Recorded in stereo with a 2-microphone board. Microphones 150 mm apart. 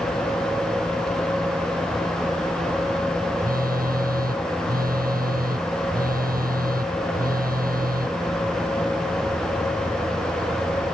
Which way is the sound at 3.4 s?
80° right.